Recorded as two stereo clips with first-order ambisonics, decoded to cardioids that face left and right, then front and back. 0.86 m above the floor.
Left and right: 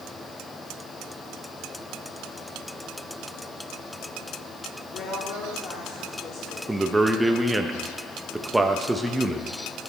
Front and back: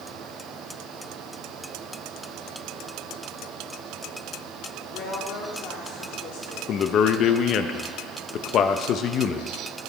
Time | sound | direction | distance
4.9 | a woman speaking | 40° left | 2 m
6.7 | a man speaking | 15° right | 0.6 m